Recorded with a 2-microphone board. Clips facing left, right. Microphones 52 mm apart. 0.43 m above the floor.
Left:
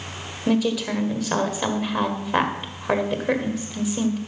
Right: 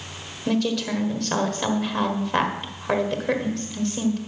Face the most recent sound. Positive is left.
turn(degrees=5)  # may be behind; listen again after turning